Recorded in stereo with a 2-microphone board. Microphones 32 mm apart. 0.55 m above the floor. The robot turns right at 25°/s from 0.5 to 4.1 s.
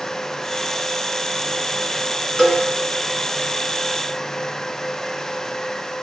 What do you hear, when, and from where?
2.4 s a cowbell: 10° left (ahead or behind), 2.0 m; by 2.6 s 5° left (ahead or behind), 2.0 m